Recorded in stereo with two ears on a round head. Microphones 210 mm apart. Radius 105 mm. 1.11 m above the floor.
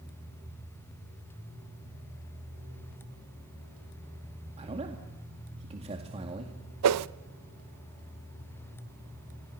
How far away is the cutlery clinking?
I don't hear cutlery clinking.